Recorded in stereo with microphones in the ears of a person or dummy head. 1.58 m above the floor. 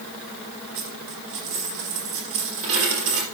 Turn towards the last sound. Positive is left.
turn(degrees=-70)  # may be behind; listen again after turning